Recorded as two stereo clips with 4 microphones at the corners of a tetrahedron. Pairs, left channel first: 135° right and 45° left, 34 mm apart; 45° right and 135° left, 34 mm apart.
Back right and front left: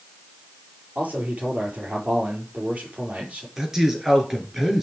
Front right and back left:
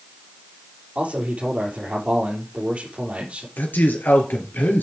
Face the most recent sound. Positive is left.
turn(degrees=-35)